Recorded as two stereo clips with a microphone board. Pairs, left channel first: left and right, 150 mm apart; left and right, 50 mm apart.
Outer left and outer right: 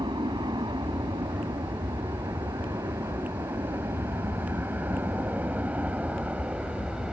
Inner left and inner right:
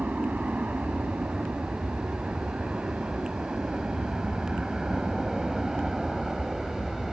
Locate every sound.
0.0 s an aircraft: 30° right (ahead or behind); by 7.1 s 5° right (ahead or behind)